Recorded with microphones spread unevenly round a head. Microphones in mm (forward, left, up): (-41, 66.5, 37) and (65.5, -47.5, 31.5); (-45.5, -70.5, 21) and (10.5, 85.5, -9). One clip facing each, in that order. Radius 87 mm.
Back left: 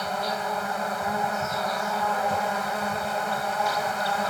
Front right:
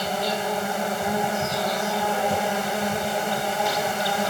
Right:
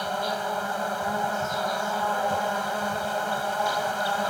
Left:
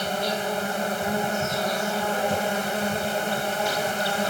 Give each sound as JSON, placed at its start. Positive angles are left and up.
{"t": 0.0, "sound": "an insect", "azimuth_deg": 5}